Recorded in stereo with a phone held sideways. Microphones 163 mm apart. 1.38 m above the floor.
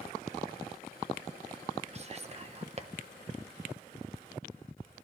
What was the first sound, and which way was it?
Whispering, 40° right (ahead or behind).